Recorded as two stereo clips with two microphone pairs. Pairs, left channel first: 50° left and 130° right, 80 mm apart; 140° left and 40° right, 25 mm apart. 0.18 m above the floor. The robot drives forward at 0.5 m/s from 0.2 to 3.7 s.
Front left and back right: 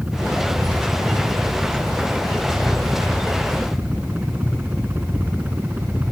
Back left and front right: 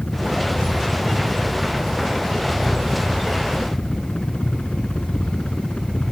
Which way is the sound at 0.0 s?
155° left.